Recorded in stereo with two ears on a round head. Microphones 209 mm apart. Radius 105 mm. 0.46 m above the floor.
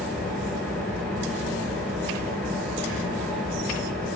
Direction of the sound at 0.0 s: Centre (ahead or behind).